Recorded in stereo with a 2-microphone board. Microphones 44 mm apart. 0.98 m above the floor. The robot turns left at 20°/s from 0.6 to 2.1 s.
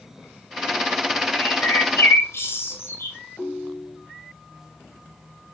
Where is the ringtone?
70° left (ahead or behind), 4 m.